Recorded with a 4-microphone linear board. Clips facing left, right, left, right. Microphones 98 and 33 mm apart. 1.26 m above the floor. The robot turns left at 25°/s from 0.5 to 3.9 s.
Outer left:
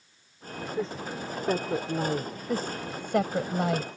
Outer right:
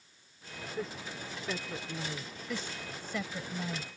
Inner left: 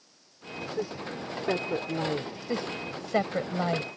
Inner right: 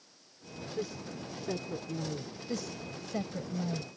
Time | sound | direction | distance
0.8 | a woman speaking | 30° left (ahead or behind) | ?
2.5 | a woman speaking | 40° left (ahead or behind) | ?